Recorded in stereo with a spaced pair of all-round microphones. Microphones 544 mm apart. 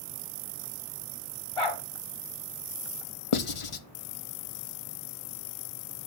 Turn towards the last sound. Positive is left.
turn(degrees=65)  # may be behind; listen again after turning